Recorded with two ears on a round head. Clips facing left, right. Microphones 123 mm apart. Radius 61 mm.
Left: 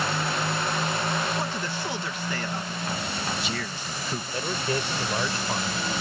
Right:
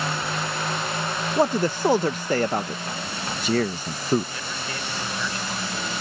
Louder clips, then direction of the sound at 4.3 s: Left 5 dB; 25° left (ahead or behind).